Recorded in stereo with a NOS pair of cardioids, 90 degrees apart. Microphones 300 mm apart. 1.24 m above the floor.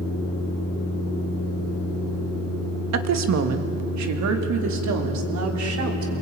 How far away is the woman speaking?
About 1.7 m.